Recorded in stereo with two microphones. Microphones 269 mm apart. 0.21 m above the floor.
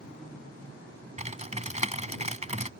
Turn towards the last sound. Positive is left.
turn(degrees=-25)  # may be behind; listen again after turning